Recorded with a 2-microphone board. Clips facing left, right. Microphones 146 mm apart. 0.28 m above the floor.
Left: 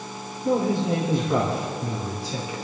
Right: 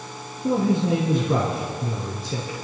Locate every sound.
0.4 s a man speaking: 55° right (ahead or behind), 4 m; by 2.5 s 45° right (ahead or behind), 3.5 m